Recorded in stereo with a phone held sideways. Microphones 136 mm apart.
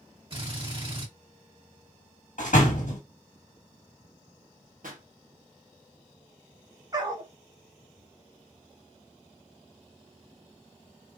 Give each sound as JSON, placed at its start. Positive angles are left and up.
{"t": 0.3, "sound": "a drill", "side_deg": -40, "distance_m": 1.7}
{"t": 2.4, "sound": "a door slam", "side_deg": 65, "distance_m": 1.2}
{"t": 4.8, "sound": "a pop", "side_deg": -80, "distance_m": 1.1}
{"t": 6.9, "sound": "a dog barking", "side_deg": -30, "distance_m": 1.0}